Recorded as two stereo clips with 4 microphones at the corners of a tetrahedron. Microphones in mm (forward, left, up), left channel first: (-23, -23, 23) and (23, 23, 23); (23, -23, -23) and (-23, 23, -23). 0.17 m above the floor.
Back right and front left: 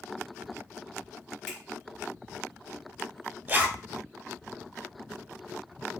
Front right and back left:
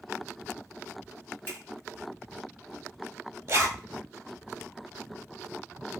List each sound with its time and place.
1.5 s a finger snap: 70° right, 1.3 m
3.5 s a zipper: 100° left, 0.9 m